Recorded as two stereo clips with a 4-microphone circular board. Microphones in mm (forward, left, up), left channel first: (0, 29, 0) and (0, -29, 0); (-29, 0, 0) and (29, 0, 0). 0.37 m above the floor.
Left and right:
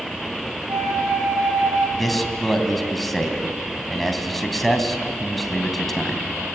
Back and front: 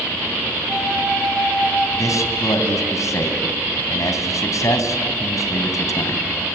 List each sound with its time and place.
0.7 s a flute: 95° right, 8.5 m
2.0 s a man speaking: 175° left, 3.5 m